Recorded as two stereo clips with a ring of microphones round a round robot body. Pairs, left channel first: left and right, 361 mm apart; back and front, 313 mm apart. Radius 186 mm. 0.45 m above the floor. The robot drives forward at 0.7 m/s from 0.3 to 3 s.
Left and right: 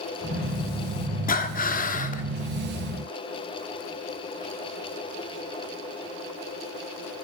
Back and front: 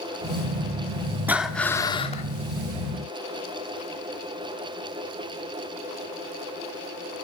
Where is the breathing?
75° left, 1.4 m; by 2.2 s 135° left, 1.5 m.